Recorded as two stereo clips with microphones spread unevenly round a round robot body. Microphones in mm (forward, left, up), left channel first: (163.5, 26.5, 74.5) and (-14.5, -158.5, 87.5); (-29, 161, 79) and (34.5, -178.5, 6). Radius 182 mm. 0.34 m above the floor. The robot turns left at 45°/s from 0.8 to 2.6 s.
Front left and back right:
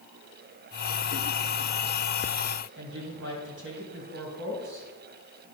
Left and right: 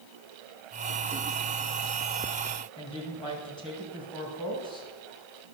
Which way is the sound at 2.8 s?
Straight behind.